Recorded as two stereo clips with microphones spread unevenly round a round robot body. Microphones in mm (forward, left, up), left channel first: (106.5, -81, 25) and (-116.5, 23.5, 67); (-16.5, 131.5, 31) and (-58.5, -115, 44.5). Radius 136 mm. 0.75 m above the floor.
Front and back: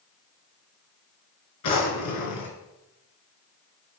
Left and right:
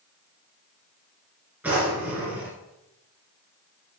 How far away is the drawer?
About 3 m.